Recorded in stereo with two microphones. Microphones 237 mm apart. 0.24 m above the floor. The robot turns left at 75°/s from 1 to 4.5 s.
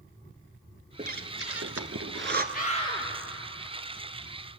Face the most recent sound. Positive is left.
turn(degrees=-105)